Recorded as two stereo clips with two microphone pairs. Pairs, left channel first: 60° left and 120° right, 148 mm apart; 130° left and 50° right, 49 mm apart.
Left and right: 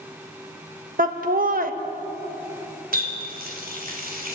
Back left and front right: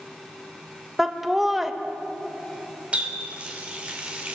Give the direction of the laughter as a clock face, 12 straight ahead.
5 o'clock.